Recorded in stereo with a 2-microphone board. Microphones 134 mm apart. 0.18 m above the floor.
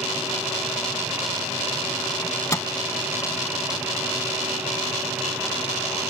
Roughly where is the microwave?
Left.